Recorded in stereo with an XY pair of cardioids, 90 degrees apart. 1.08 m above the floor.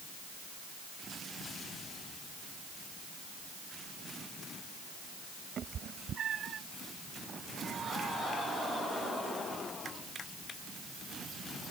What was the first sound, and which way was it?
A cat meowing, 65° right.